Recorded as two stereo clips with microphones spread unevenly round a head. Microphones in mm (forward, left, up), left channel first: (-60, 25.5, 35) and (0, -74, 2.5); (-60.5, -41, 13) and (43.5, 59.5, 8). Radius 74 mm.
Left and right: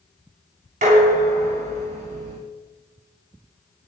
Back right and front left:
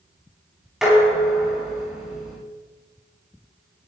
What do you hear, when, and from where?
0.8 s dishes clattering: 45° right, 7 m